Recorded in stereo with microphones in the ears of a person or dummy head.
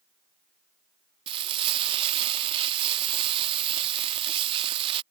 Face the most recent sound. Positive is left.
turn(degrees=-30)  # may be behind; listen again after turning